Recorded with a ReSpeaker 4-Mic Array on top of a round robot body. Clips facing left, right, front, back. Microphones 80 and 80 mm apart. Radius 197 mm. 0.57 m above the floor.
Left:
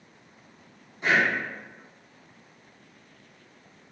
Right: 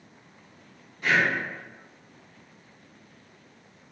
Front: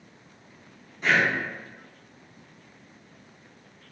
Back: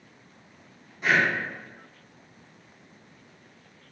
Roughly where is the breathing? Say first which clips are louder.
Even, even; left.